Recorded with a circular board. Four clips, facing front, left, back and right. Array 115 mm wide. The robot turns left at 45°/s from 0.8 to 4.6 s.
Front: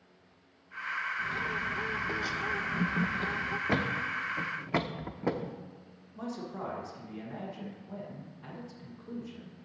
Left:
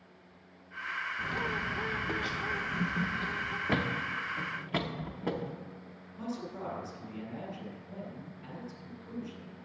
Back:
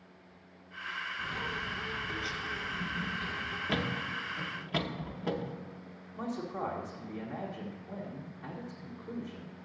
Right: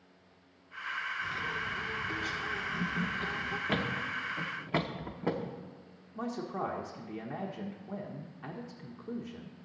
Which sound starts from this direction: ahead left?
A thud, at 3.7 s.